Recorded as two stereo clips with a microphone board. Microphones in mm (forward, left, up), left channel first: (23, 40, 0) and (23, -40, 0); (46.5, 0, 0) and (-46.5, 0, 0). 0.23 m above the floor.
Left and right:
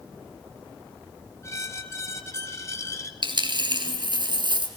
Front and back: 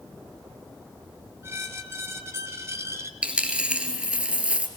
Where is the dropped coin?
105° right, 2 m.